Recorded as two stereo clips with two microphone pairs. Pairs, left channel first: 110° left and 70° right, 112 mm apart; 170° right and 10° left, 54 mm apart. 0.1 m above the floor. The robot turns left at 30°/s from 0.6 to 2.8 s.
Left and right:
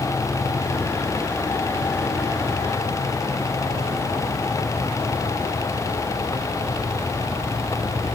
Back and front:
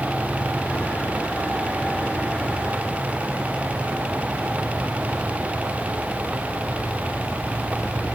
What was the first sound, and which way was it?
Only background noise.